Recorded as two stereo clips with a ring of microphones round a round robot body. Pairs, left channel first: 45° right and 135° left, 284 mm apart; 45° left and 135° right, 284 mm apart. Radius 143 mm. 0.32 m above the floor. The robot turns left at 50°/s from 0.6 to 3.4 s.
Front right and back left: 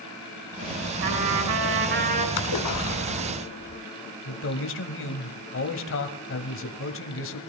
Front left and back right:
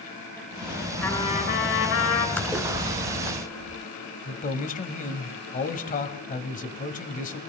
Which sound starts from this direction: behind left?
A trumpet, at 1.0 s.